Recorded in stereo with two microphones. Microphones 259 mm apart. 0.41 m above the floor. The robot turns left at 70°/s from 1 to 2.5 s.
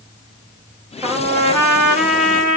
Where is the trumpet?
20° right, 1.1 m; by 2.6 s 125° right, 1.1 m.